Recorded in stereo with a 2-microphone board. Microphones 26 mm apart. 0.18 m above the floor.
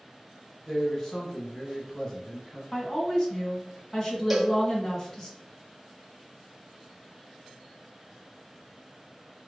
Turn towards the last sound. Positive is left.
turn(degrees=-5)  # may be behind; listen again after turning